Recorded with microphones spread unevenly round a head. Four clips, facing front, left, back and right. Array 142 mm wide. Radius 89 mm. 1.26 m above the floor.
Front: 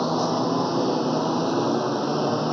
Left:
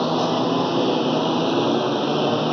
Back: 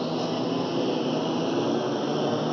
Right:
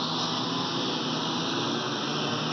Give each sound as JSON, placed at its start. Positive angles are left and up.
{"t": 0.0, "sound": "a lawn mower", "azimuth_deg": 95}